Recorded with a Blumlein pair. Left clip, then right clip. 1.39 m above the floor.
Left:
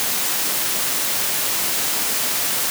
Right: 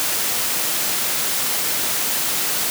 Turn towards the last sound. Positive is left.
No sound to turn to.